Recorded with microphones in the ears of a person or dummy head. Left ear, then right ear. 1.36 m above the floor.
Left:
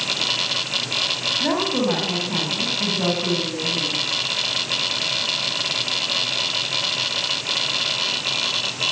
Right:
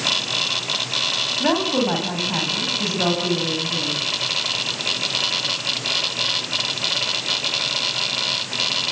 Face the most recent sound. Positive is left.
turn(degrees=-90)